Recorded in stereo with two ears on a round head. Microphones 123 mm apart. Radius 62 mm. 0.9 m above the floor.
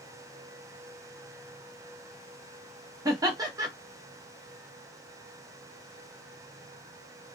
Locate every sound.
3.0 s laughter: 25° right (ahead or behind), 0.9 m